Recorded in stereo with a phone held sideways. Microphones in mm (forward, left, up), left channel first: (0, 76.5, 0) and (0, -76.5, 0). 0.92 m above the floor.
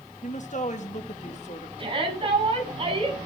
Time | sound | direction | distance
0.2 | a woman speaking | 55° left (ahead or behind) | 1.5 m
1.8 | a shout | 35° right (ahead or behind) | 7 m